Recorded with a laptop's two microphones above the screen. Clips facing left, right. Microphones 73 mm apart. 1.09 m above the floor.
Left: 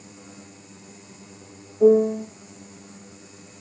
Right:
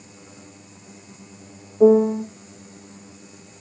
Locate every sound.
1.8 s a piano: 45° right (ahead or behind), 0.9 m